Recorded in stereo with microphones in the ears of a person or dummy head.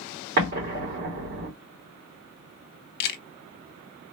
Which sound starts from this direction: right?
An explosion, at 0.4 s.